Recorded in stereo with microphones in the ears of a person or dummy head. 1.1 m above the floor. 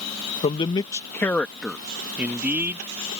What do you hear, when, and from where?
0.4 s a man speaking: 30° left (ahead or behind); by 2.9 s 15° right (ahead or behind)